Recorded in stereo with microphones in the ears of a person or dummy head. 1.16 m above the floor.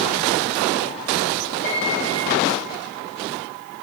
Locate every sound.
1.6 s a piano: 45° left (ahead or behind), 4.5 m